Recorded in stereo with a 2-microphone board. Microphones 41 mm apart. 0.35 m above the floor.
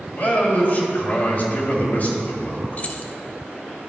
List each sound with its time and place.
0.1 s a man speaking: 45° left (ahead or behind), 2 m
2.8 s keys jangling: 35° left (ahead or behind), 0.8 m